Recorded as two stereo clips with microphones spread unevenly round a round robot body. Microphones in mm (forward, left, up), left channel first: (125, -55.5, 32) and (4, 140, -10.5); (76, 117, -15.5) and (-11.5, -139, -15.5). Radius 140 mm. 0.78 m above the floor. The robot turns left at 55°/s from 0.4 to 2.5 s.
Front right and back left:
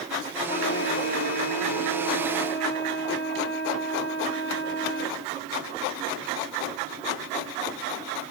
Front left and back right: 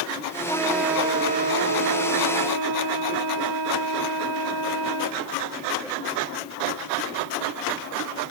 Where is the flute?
Straight ahead, 2.5 m; by 5.2 s 115° right, 2.5 m.